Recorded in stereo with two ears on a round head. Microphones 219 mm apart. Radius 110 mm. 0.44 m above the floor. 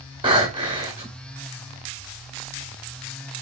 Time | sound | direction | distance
0.2 | breathing | 20° right (ahead or behind) | 1.6 m